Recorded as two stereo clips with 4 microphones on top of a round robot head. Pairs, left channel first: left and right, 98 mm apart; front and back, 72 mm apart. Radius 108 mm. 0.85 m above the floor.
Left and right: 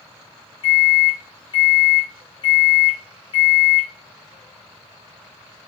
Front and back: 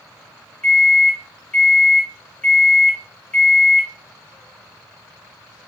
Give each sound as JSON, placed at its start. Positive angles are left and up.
{"t": 0.6, "sound": "a microwave", "azimuth_deg": 80, "distance_m": 0.8}